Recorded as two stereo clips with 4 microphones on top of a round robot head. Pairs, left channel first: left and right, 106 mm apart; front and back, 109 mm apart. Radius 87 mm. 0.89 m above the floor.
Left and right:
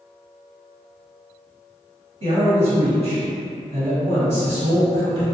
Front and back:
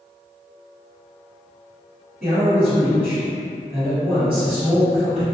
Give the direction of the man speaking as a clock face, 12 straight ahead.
3 o'clock.